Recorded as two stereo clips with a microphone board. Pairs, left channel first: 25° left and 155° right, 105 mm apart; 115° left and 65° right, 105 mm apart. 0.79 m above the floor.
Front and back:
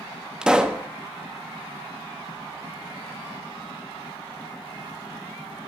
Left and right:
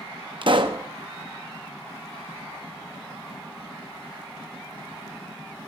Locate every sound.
0.4 s a pop: 75° right, 0.8 m